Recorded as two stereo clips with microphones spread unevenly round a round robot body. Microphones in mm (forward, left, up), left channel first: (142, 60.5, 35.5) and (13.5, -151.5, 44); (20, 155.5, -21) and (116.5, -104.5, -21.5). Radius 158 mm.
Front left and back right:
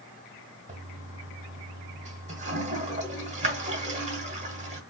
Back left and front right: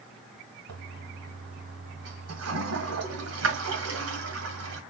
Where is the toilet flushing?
65° right, 1.6 m.